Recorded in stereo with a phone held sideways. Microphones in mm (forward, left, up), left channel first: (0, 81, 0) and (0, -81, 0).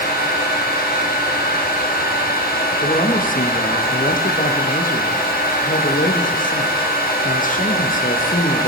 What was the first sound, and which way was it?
A fan, 65° left (ahead or behind).